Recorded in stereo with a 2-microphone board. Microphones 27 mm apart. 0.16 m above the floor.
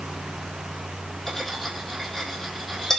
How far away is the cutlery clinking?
About 4.5 m.